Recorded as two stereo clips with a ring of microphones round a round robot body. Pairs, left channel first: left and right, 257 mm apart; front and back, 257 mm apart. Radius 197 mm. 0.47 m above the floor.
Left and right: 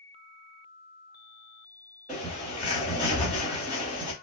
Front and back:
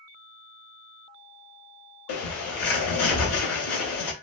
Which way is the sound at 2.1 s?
5° right.